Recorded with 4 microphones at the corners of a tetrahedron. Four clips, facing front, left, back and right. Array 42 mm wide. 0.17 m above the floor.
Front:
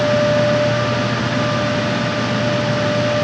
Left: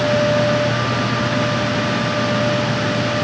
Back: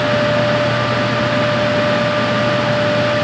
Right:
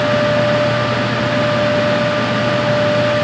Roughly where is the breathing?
No breathing in this recording.